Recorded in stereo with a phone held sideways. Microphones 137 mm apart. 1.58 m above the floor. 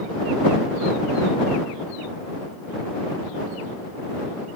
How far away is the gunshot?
No gunshot in this recording.